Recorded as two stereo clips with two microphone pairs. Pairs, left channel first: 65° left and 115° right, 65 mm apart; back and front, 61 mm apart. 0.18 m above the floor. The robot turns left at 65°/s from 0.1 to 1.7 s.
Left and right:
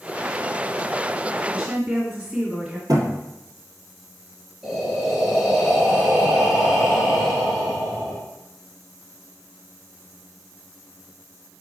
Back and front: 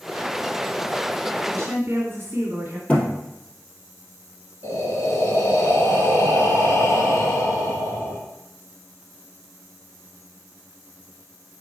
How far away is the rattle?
No rattle in this recording.